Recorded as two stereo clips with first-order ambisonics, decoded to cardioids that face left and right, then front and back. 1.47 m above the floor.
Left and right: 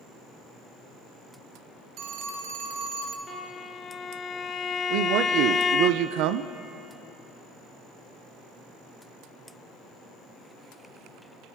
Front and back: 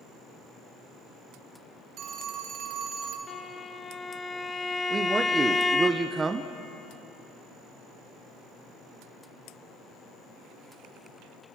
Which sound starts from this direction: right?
A man speaking, at 4.9 s.